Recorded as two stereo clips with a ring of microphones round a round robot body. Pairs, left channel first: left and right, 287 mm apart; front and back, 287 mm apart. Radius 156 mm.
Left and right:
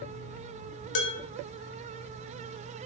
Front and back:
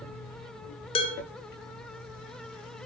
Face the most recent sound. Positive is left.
turn(degrees=70)